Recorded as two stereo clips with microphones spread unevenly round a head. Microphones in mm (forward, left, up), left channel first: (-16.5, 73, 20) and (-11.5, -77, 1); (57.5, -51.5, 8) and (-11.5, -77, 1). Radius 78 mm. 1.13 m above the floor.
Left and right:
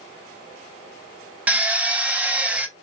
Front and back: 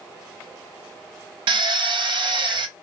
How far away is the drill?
About 0.5 m.